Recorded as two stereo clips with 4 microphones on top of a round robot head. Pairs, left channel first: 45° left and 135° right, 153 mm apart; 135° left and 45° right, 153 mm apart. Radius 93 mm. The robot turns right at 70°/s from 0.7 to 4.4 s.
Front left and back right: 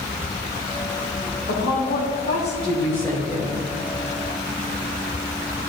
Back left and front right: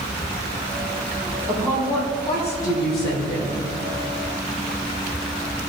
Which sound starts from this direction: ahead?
A woman speaking, at 1.5 s.